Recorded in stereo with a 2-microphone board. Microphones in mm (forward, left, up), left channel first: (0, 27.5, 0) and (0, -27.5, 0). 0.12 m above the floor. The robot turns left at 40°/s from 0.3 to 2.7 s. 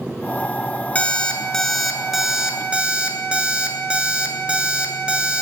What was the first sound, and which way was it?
An alarm clock, 40° left.